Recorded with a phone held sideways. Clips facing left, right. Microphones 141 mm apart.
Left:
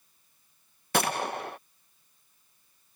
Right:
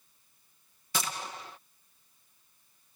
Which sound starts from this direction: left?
A gunshot, at 0.9 s.